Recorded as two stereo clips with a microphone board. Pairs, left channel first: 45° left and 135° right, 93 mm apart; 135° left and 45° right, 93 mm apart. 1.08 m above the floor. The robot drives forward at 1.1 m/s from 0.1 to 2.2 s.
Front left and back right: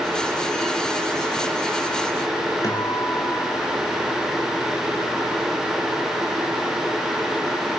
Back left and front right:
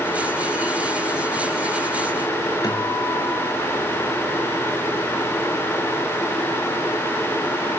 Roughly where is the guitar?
Left.